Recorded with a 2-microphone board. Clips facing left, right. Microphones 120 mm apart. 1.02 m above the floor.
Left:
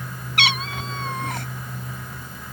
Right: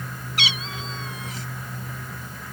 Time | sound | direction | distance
0.4 | a cat meowing | 70° left (ahead or behind) | ?